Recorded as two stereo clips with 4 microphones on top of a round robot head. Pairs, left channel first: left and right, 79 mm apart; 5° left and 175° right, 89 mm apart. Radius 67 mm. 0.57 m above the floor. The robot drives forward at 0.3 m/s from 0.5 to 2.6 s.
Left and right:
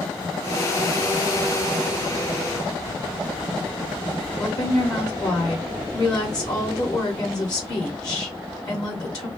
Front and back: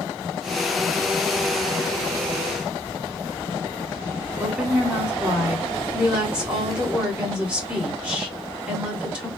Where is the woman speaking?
110° left, 1.7 m.